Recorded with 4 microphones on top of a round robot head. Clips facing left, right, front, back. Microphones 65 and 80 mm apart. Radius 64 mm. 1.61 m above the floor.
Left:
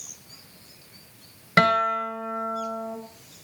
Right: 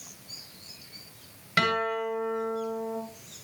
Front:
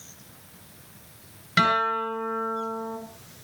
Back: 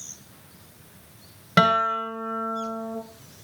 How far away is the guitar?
About 7.5 m.